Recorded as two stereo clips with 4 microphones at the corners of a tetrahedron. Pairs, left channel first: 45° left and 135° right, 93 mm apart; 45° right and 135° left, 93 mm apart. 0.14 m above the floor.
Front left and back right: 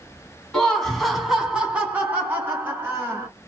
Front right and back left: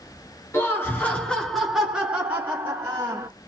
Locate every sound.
0.5 s laughter: 35° right, 1.3 m; by 3.3 s 170° left, 1.6 m